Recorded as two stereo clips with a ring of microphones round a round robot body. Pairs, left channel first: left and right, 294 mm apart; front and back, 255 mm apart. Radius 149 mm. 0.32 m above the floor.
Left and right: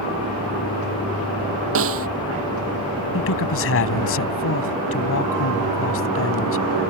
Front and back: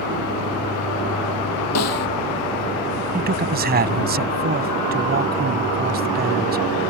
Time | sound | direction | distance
1.8 | a snare drum | 45° right | ?
3.1 | a man speaking | 130° left | ?